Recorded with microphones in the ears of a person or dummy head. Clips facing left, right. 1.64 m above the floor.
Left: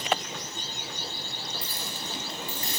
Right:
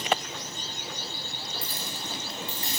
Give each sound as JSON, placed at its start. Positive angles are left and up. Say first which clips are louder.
{"t": 1.6, "sound": "keys jangling", "louder": "even", "side_deg": -15, "distance_m": 0.7}